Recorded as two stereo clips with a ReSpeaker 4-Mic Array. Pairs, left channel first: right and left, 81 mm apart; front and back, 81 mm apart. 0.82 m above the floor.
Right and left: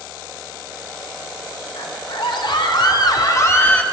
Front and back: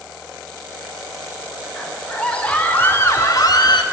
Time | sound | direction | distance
1.7 | a scream | 85° right | 3.5 m